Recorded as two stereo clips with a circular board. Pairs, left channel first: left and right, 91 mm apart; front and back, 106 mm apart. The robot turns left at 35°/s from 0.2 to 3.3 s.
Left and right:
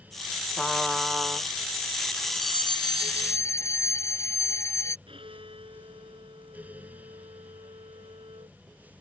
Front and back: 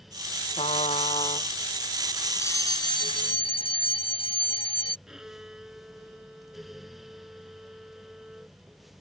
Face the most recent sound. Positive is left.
turn(degrees=-95)